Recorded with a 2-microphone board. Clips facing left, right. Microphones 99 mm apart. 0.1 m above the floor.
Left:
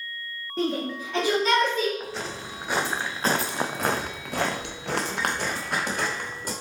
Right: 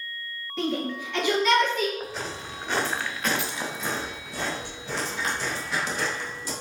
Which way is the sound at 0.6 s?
40° left (ahead or behind).